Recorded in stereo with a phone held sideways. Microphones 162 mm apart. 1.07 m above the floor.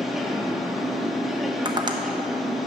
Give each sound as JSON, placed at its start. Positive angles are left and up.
{"t": 0.0, "sound": "a machine running", "side_deg": 0, "distance_m": 0.9}
{"t": 1.6, "sound": "tapping", "side_deg": -25, "distance_m": 0.8}